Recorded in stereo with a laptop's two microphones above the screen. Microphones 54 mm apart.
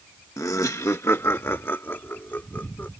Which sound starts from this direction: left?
Laughter, at 0.4 s.